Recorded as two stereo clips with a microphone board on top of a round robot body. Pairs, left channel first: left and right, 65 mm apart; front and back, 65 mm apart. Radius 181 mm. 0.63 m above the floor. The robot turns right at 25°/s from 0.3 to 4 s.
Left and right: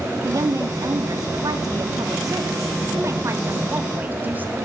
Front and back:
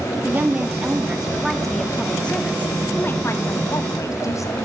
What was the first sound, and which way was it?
A woman speaking, 120° right.